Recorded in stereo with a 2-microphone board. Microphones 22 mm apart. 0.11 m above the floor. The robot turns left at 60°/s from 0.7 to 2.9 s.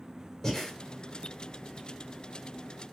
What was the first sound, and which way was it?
Breathing, 15° left (ahead or behind).